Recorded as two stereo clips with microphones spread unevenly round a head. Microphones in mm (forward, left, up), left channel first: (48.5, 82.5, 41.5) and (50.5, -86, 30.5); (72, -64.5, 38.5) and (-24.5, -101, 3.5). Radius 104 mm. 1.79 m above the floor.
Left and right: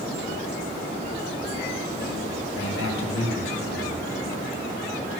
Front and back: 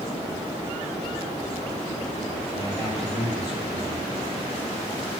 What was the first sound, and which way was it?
A man speaking, 95° left.